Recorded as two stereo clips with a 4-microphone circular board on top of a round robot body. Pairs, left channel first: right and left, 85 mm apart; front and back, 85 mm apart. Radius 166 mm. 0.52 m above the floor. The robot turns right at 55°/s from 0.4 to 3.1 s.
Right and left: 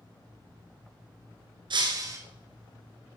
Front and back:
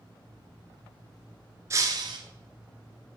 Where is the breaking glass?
120° left, 1.2 m; by 2.2 s 150° left, 1.2 m.